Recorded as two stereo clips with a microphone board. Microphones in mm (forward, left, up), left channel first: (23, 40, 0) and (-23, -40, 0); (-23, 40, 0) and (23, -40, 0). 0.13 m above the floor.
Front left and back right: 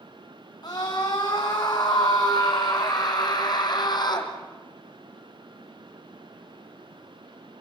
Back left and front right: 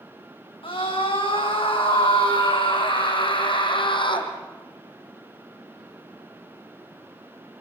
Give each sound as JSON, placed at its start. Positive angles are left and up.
{"t": 0.6, "sound": "a scream", "azimuth_deg": 100, "distance_m": 8.5}